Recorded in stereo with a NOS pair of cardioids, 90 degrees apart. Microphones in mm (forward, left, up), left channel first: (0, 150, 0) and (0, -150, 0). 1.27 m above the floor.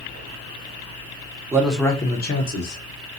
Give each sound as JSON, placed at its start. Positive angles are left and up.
{"t": 1.5, "sound": "a man speaking", "azimuth_deg": -10, "distance_m": 1.0}